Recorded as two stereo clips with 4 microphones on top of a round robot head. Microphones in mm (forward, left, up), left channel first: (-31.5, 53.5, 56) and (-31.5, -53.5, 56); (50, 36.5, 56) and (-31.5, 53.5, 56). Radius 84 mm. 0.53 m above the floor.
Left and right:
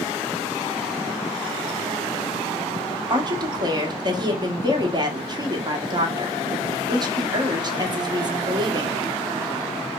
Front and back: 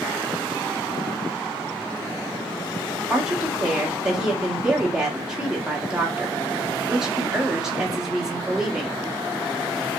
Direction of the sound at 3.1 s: 110° right.